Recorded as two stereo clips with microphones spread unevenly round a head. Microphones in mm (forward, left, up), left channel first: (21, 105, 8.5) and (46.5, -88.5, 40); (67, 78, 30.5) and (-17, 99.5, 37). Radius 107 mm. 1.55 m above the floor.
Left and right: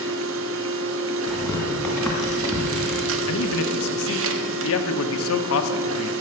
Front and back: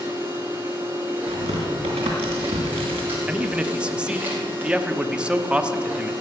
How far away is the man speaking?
About 1.2 m.